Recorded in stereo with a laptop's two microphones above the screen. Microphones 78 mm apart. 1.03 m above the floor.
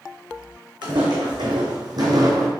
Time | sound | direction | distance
0.8 | footsteps | 70° right (ahead or behind) | 2.5 m